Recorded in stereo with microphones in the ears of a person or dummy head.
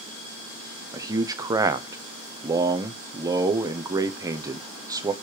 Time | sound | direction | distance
0.9 | a man speaking | 25° right (ahead or behind) | 0.7 m